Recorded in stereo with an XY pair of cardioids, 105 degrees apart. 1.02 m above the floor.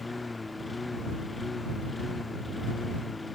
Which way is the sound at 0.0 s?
20° left.